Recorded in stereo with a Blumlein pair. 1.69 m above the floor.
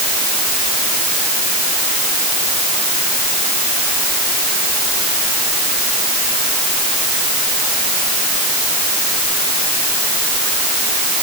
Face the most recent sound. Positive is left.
No sound to turn to.